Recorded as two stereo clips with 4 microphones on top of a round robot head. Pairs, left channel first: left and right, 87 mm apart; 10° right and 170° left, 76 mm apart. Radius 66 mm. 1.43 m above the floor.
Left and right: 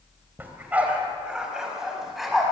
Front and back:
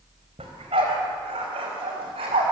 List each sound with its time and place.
0.4 s a dog barking: 160° right, 3.5 m; by 2.5 s straight behind, 5 m